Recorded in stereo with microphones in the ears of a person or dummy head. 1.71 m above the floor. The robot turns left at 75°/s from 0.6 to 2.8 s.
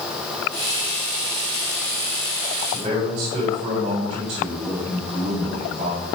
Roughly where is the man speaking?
Right.